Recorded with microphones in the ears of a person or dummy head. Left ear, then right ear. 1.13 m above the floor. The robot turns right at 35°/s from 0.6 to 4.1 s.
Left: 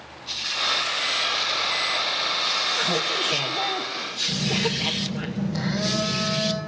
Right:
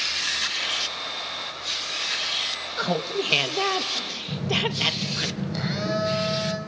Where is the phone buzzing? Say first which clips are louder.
Even; 20° right (ahead or behind), 4.5 m.